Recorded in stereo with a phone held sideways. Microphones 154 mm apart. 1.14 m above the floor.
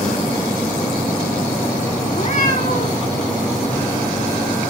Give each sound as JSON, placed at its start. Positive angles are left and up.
{"t": 2.1, "sound": "a cat meowing", "side_deg": 60, "distance_m": 4.0}